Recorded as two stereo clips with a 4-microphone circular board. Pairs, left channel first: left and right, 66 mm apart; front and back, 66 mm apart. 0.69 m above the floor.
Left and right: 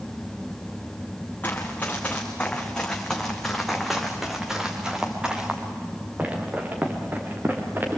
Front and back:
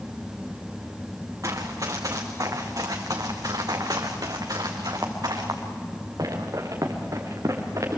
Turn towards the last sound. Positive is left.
turn(degrees=-145)